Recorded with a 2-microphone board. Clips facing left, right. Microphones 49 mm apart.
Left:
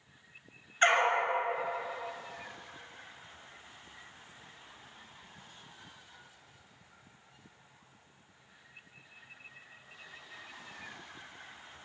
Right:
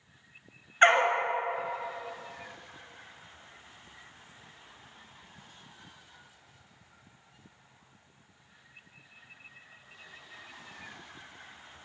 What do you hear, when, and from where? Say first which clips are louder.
0.8 s a dog barking: right 4 dB; 30° right (ahead or behind), 0.8 m